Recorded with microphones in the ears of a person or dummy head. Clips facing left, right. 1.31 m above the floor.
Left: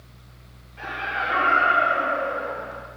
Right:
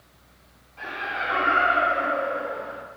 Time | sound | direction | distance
0.8 | laughter | 20° left (ahead or behind) | 0.9 m